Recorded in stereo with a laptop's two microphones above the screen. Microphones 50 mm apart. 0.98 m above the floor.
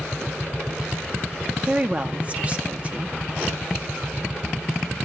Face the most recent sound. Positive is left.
turn(degrees=-30)  # may be behind; listen again after turning